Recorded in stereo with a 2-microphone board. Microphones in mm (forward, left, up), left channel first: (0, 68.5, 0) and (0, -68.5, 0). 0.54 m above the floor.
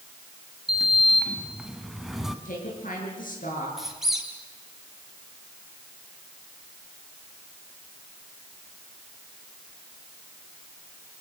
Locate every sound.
0.7 s a sliding door: centre (ahead or behind), 1.7 m
2.5 s a woman speaking: 80° left, 8 m
3.8 s a squeak: centre (ahead or behind), 3.5 m